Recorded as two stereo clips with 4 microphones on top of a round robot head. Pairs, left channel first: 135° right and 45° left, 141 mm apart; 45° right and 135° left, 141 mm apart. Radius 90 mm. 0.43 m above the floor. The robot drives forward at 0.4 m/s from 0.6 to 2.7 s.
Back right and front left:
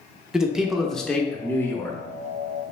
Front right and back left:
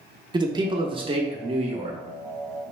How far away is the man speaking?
About 0.8 m.